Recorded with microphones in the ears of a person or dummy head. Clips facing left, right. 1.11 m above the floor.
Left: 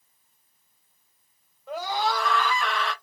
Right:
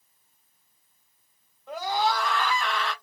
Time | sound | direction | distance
1.7 | a scream | centre (ahead or behind) | 1.9 m